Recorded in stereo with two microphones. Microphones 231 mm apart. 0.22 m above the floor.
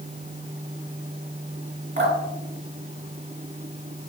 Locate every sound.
2.0 s dripping: 55° right (ahead or behind), 2.5 m